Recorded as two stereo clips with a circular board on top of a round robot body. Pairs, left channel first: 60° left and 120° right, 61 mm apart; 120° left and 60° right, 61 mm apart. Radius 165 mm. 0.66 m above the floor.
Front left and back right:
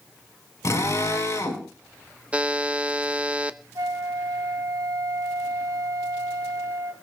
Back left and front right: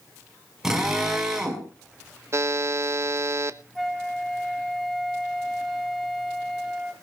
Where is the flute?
155° right, 3 m.